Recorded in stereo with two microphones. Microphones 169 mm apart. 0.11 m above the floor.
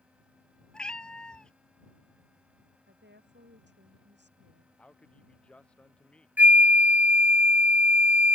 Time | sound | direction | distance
0.7 | a cat meowing | 5° left (ahead or behind) | ?
2.9 | a woman speaking | 75° right (ahead or behind) | ?
4.8 | a man speaking | 5° left (ahead or behind) | ?
6.4 | a flute | 10° right (ahead or behind) | ?